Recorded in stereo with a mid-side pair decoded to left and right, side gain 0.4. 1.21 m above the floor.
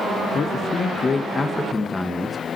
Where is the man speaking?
55° left, 1.5 m; by 2.4 s 5° left, 1.5 m.